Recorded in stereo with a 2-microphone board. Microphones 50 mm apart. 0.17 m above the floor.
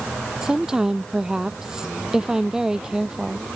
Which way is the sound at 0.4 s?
15° right (ahead or behind).